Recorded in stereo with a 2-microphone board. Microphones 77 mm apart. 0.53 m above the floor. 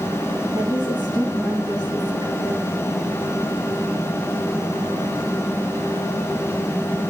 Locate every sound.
0.5 s a woman speaking: 70° right (ahead or behind), 6 m; by 2.7 s 60° right (ahead or behind), 7 m